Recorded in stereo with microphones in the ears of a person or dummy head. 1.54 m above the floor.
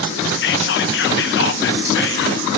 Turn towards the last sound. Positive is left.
turn(degrees=65)  # may be behind; listen again after turning